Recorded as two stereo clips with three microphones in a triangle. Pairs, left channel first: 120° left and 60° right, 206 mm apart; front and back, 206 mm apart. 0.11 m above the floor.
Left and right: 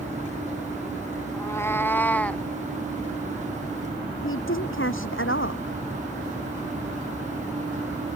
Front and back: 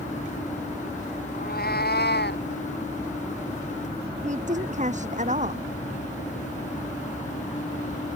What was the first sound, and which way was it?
A cat meowing, 45° left.